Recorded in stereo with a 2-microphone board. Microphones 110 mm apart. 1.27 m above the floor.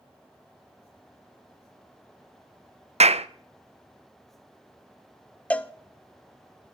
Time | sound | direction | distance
3.0 | a clap | 75° right (ahead or behind) | 0.5 m
5.5 | a cowbell | 10° left (ahead or behind) | 0.6 m